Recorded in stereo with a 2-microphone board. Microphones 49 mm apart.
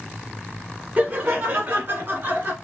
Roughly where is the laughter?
Right.